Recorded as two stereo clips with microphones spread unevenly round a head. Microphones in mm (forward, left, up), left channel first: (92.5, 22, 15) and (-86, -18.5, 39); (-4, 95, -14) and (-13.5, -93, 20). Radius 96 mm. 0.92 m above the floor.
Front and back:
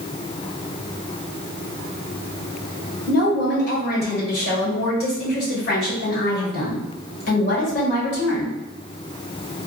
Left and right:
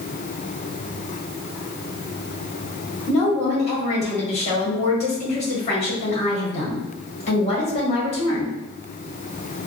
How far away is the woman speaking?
About 1.7 m.